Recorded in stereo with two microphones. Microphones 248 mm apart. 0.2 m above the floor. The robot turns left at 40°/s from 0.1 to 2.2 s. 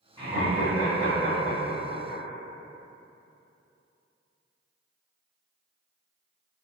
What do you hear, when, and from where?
0.2 s laughter: 20° right (ahead or behind), 1.6 m; by 2.2 s 15° left (ahead or behind), 1.6 m